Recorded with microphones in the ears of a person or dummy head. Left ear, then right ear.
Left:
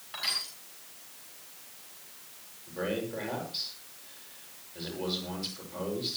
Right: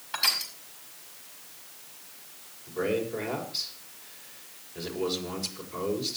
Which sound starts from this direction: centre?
A man speaking, at 2.7 s.